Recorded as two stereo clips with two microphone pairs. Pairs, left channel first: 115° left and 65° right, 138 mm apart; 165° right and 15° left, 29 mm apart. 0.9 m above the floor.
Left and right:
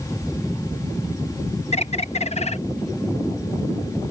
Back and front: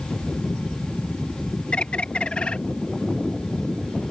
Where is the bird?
150° left.